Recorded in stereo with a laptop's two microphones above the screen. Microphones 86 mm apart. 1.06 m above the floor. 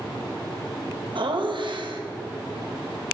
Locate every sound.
1.1 s laughter: 65° right (ahead or behind), 0.9 m